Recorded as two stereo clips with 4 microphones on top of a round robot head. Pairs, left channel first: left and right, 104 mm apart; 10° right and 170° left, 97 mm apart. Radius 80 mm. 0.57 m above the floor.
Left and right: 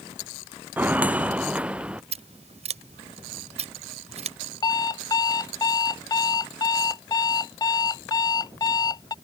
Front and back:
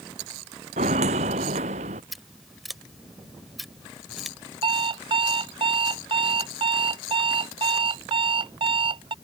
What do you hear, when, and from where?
0.8 s footsteps: 165° right; by 2.0 s 170° right
2.1 s scissors: 100° right
4.6 s an alarm clock: 140° left